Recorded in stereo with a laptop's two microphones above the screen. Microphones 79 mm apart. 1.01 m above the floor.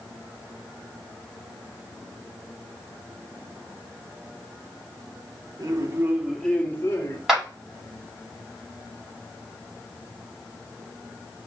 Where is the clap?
5° right (ahead or behind), 2 m.